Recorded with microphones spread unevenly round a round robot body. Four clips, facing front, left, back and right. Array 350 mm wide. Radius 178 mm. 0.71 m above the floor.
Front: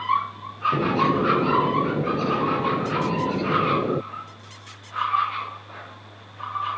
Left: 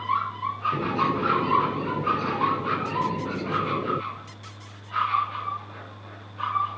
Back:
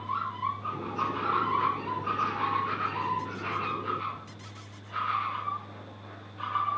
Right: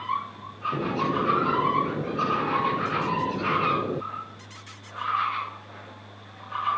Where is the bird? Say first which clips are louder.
Right 2 dB, front 11 dB; straight ahead.